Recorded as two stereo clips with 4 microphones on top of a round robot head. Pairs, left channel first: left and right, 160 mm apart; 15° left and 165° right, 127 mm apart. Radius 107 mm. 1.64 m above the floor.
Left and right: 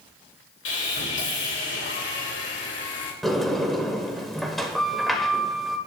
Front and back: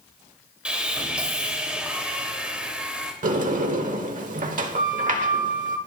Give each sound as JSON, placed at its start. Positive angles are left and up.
{"t": 0.7, "sound": "sawing", "azimuth_deg": 110, "distance_m": 3.0}
{"t": 3.2, "sound": "a sliding door", "azimuth_deg": 180, "distance_m": 1.2}